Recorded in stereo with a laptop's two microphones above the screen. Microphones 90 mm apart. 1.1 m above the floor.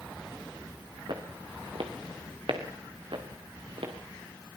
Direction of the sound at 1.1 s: 65° right (ahead or behind).